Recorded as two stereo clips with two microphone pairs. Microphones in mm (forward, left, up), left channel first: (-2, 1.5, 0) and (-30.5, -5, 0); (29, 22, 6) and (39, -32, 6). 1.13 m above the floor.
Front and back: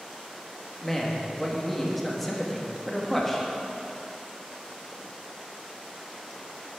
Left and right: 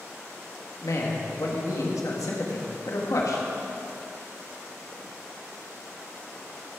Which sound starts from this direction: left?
A man speaking, at 0.8 s.